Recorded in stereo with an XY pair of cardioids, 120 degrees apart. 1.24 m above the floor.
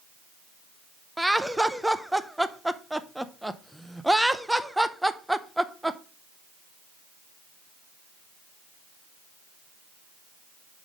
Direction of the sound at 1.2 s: 5° right.